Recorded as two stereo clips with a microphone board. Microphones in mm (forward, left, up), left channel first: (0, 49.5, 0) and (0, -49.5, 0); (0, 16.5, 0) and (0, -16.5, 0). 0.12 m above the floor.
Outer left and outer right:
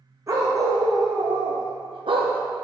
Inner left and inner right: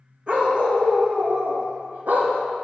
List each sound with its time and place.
0.3 s a dog barking: 35° right (ahead or behind), 1.9 m; by 2.4 s 80° right, 1.3 m